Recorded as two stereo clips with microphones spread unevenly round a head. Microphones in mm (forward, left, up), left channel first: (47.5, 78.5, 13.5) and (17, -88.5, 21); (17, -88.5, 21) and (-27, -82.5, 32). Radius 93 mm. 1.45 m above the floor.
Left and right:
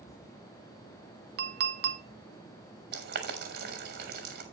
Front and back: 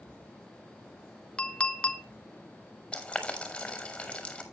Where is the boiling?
75° right, 4 m.